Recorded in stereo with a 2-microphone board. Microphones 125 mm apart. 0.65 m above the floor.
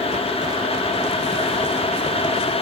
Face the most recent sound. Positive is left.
No sound to turn to.